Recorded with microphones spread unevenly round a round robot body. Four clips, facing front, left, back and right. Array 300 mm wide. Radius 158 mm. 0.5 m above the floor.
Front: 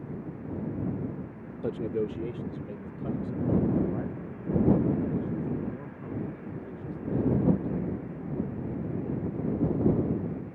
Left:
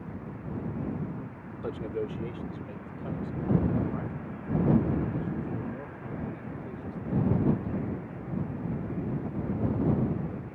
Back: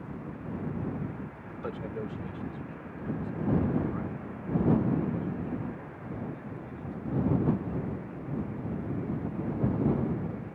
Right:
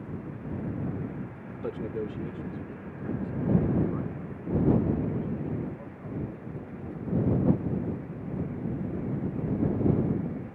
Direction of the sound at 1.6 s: 25° right.